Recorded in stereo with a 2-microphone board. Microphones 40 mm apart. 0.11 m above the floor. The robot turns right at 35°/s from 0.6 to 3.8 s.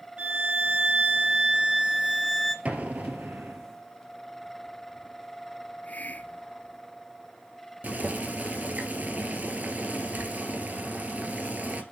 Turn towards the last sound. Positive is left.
turn(degrees=-40)  # may be behind; listen again after turning